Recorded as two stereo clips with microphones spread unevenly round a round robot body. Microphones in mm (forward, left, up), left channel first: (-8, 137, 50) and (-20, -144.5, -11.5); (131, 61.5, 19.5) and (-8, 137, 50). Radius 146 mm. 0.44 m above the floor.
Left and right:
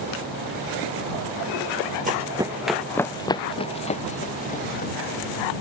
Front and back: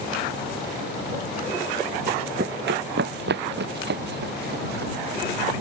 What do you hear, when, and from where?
2.1 s running footsteps: 160° right; by 4.9 s 145° left